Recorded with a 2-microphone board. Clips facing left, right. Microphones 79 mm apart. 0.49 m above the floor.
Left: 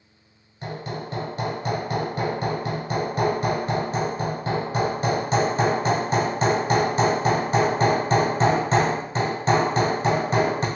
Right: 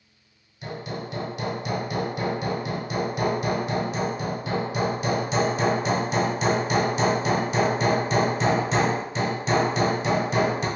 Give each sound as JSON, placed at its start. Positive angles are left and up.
{"t": 0.6, "sound": "hammering", "side_deg": 40, "distance_m": 1.9}